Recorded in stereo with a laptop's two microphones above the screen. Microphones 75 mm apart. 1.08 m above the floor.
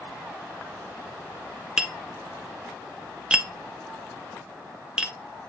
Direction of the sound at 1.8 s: 10° right (ahead or behind).